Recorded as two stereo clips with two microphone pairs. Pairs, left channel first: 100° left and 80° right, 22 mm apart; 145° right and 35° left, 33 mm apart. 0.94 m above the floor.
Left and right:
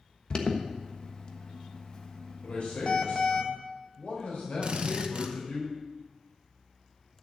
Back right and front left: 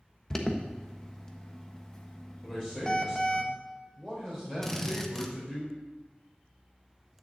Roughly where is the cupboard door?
I don't hear a cupboard door.